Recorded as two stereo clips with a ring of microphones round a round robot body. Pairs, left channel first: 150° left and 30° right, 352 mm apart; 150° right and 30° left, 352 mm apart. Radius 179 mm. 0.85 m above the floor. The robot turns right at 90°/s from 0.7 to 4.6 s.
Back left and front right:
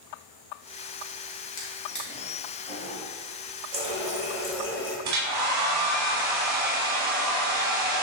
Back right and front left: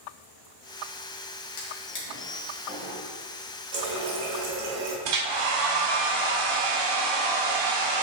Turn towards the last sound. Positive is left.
turn(degrees=15)